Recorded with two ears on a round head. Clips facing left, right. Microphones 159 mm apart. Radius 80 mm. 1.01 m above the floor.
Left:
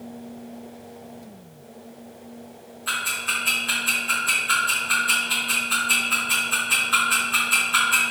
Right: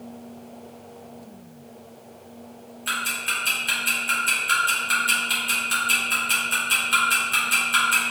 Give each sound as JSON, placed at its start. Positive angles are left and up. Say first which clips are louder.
{"t": 2.9, "sound": "ticking", "louder": "even", "side_deg": -30, "distance_m": 1.8}